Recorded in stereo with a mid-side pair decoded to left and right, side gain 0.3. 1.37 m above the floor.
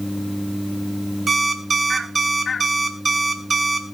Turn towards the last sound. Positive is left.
turn(degrees=-50)